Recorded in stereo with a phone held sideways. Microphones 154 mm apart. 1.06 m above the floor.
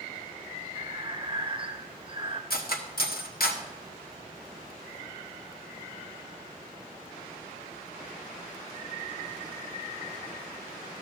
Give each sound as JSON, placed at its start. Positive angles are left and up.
{"t": 0.8, "sound": "breathing", "side_deg": -35, "distance_m": 0.7}
{"t": 2.5, "sound": "cutlery clinking", "side_deg": 80, "distance_m": 1.1}